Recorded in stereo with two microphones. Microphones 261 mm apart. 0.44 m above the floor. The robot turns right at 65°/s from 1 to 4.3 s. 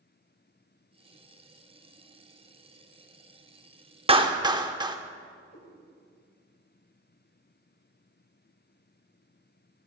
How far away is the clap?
About 0.6 m.